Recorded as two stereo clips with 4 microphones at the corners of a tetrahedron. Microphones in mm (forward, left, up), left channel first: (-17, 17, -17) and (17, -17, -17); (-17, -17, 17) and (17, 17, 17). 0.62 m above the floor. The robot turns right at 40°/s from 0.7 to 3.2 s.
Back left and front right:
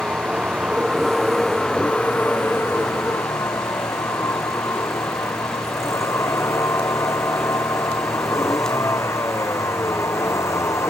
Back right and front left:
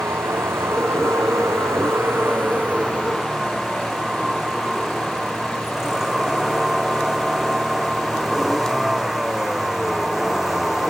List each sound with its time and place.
0.0 s a vehicle: 20° left; by 10.9 s 130° left